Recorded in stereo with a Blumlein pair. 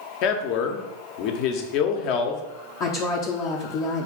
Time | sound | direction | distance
0.2 | a man speaking | 40° left | 0.7 m
2.8 | a woman speaking | 35° left | 0.6 m